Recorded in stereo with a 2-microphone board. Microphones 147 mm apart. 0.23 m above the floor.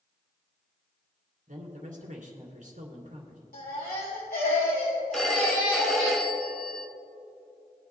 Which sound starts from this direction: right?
A man speaking, at 1.5 s.